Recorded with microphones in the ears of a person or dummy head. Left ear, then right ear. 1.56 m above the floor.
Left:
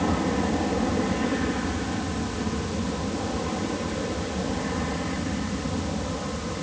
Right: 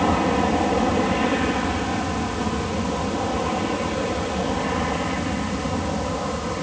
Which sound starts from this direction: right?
An aircraft, at 0.0 s.